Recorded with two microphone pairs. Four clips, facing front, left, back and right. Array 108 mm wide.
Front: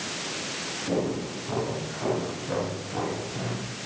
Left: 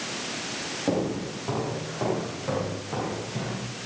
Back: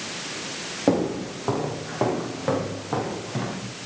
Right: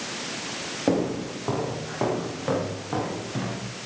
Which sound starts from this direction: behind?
Footsteps, at 0.9 s.